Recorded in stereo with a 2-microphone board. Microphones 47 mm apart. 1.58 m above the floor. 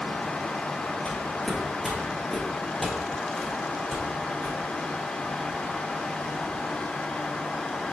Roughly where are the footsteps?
Centre.